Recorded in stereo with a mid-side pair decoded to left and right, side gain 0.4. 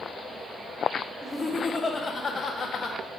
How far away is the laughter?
About 1.7 m.